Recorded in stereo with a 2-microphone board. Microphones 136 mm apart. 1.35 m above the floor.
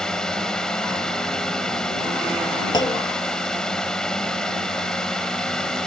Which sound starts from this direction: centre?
A drone, at 0.0 s.